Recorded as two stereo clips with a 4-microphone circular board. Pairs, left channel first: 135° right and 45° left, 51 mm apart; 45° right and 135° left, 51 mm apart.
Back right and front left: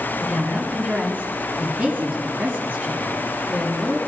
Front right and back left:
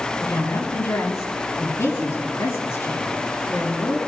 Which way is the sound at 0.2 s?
15° right.